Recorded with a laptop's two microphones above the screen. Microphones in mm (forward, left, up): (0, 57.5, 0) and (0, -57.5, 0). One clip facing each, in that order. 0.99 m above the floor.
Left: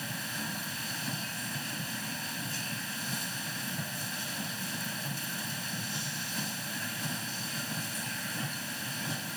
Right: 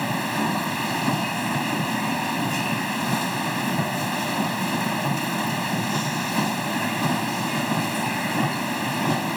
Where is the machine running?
85° right.